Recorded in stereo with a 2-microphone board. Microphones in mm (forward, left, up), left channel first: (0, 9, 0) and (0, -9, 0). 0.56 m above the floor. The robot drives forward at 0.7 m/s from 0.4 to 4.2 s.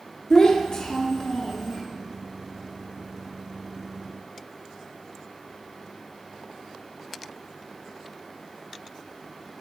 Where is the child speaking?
35° left (ahead or behind), 0.8 m; by 1.8 s 20° left (ahead or behind), 1.5 m.